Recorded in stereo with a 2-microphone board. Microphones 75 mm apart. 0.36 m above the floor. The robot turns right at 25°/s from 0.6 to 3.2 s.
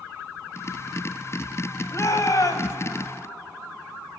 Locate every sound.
1.9 s a shout: 45° left (ahead or behind), 1.9 m; by 2.8 s 55° left (ahead or behind), 1.9 m